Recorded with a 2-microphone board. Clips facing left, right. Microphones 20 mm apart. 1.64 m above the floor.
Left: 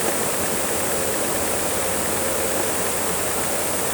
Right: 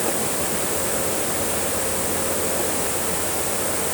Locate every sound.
Only background noise.